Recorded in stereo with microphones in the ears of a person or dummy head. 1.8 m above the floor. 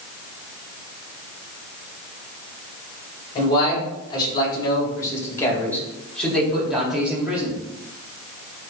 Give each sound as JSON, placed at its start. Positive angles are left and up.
{"t": 3.4, "sound": "a man speaking", "side_deg": 30, "distance_m": 3.5}